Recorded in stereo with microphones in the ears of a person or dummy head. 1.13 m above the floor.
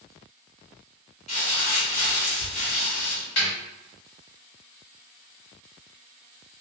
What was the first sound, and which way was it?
Crumpling, 35° left (ahead or behind).